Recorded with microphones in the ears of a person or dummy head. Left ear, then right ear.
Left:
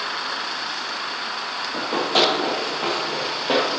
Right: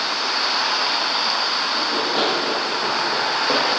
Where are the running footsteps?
50° left (ahead or behind), 2.5 m; by 3.7 s 10° left (ahead or behind), 2.5 m.